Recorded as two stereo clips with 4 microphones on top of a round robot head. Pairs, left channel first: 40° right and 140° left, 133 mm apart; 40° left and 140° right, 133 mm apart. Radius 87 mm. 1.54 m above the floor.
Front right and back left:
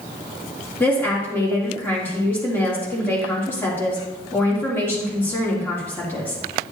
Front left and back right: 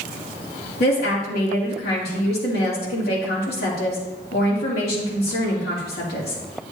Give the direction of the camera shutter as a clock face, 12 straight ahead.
No camera shutter in this recording.